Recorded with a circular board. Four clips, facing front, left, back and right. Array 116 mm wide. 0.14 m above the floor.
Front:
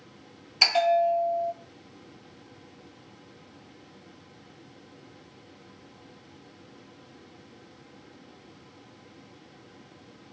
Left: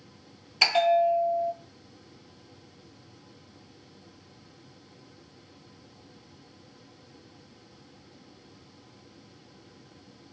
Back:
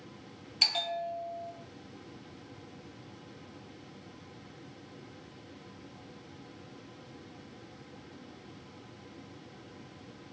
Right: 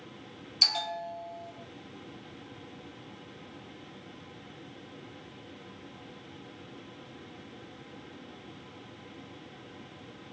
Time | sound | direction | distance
0.6 | a bell | 50° left | 0.6 m